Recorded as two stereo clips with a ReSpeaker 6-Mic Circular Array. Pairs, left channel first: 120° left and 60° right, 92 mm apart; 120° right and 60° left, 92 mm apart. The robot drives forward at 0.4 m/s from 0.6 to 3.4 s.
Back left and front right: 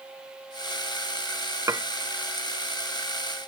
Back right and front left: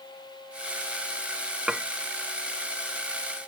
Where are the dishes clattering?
20° right, 0.5 m.